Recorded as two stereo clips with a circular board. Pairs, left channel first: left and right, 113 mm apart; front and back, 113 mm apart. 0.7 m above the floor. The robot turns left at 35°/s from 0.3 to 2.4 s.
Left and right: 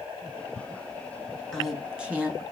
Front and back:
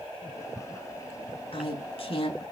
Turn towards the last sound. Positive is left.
turn(degrees=-25)